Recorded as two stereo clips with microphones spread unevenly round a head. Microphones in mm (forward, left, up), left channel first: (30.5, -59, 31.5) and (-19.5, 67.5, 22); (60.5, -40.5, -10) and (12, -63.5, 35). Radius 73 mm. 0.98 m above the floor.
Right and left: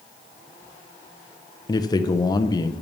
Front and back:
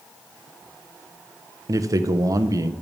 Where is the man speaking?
95° right, 0.8 m.